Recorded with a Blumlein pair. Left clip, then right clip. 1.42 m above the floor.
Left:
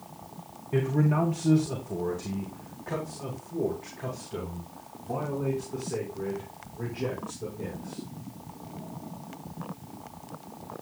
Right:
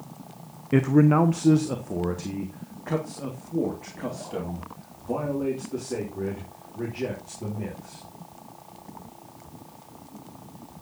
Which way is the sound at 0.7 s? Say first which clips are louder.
Right 7 dB; 60° right.